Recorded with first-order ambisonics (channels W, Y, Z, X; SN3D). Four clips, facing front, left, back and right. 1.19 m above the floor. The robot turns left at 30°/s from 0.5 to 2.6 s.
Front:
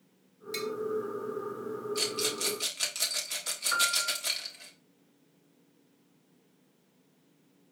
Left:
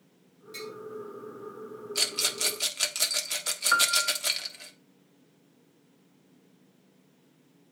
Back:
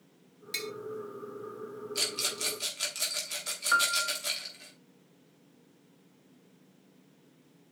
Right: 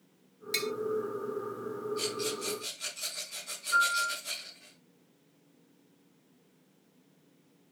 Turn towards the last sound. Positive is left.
turn(degrees=105)